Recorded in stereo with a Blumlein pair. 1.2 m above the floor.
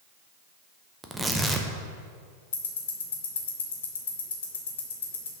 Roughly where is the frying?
No frying in this recording.